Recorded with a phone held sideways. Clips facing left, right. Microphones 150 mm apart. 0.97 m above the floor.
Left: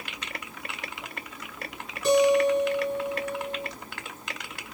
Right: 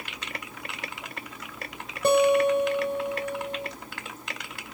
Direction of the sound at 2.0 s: 60° right (ahead or behind).